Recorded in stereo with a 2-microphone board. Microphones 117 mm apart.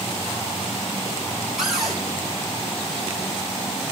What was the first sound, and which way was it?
A cupboard door, centre (ahead or behind).